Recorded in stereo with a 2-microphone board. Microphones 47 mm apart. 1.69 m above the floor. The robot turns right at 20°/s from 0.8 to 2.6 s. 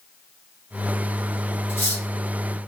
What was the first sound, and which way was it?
Cutlery clinking, 55° left (ahead or behind).